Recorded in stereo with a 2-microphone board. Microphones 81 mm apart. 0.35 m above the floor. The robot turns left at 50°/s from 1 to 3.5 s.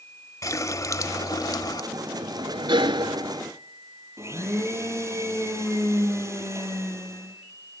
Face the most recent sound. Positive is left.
turn(degrees=-35)  # may be behind; listen again after turning